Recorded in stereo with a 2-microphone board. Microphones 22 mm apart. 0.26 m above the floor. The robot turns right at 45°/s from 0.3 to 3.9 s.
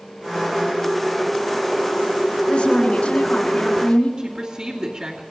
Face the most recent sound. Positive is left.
turn(degrees=-45)  # may be behind; listen again after turning